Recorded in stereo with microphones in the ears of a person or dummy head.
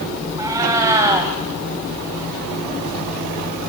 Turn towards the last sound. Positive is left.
turn(degrees=-25)  # may be behind; listen again after turning